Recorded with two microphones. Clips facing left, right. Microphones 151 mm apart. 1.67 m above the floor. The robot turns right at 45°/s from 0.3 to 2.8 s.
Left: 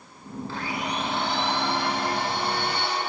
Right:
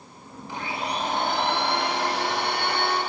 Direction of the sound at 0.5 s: 165° right.